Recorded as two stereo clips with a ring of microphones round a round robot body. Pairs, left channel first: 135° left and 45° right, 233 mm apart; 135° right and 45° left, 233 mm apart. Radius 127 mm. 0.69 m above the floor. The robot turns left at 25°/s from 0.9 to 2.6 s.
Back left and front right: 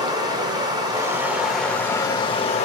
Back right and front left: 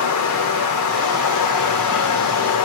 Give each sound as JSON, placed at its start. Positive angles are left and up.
{"t": 0.0, "sound": "running water", "azimuth_deg": -120, "distance_m": 0.8}